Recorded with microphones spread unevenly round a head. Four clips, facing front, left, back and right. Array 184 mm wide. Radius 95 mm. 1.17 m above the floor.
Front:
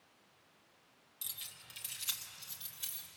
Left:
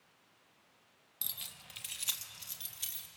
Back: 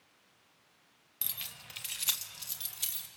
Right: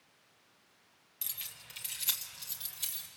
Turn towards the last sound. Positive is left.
turn(degrees=170)